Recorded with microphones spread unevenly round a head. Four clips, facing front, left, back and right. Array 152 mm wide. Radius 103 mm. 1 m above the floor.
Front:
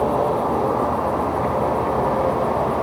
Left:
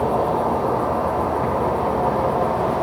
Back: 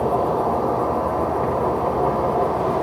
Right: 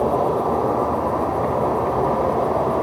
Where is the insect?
140° right, 4 m.